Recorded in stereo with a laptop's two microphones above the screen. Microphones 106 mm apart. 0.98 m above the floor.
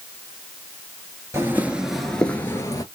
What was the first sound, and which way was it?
Footsteps, 25° right (ahead or behind).